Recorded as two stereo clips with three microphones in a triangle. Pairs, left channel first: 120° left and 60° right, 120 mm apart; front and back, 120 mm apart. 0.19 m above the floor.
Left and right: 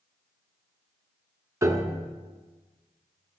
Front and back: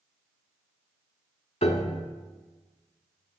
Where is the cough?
I don't hear a cough.